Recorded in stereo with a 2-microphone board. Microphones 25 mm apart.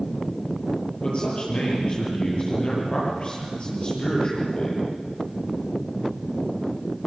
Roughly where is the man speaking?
Left.